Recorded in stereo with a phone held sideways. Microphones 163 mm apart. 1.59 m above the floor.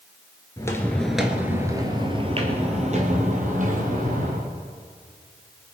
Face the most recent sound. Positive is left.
turn(degrees=-55)  # may be behind; listen again after turning